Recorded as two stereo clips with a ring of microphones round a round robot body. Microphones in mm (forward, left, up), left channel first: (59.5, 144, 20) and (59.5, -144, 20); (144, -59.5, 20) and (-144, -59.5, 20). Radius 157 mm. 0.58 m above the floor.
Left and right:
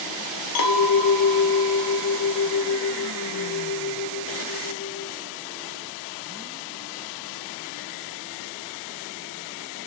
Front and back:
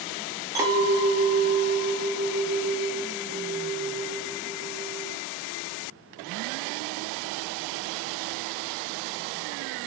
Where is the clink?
100° left, 0.6 m.